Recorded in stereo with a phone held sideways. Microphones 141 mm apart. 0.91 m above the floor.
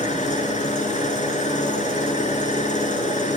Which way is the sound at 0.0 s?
60° left (ahead or behind).